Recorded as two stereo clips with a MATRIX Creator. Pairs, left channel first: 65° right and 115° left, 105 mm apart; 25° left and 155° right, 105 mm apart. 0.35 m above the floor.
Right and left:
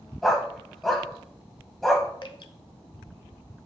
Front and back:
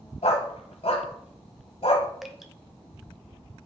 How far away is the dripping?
About 0.7 m.